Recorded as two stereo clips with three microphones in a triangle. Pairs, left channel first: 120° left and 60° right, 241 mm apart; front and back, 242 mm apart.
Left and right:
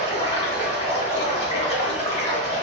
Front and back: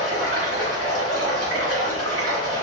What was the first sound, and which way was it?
Running water, straight behind.